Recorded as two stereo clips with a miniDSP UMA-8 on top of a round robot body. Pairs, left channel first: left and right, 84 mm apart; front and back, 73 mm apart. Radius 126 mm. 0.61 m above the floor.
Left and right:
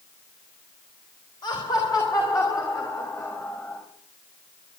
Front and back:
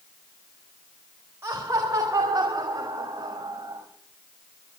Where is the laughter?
125° left, 4 m; by 3.8 s 150° left, 4 m.